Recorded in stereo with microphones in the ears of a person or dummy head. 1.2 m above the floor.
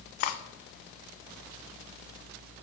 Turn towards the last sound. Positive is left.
turn(degrees=45)  # may be behind; listen again after turning